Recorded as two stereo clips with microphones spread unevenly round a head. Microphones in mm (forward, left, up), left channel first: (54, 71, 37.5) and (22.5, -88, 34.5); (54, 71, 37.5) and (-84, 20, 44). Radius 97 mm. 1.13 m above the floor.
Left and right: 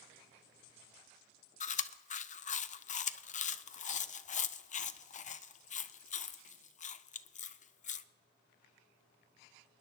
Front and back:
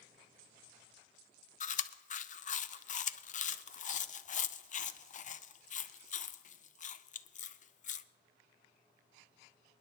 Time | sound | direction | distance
1.6 | chewing | 40° left | 0.6 m